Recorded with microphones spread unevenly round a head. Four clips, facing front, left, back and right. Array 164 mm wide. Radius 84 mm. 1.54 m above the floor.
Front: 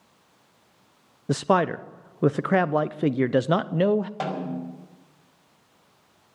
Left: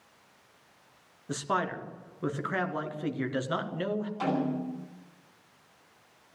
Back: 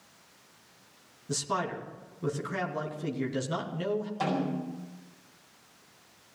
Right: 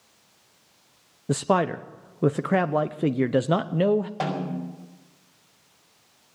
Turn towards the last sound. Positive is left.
turn(degrees=-65)